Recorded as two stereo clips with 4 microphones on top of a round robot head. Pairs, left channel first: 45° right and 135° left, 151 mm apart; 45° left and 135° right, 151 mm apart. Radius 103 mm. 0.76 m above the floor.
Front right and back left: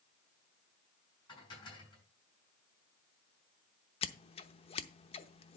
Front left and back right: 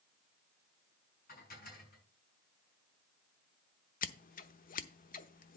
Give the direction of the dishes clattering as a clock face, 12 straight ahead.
11 o'clock.